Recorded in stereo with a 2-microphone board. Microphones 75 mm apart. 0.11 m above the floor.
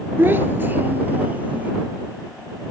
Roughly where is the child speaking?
Right.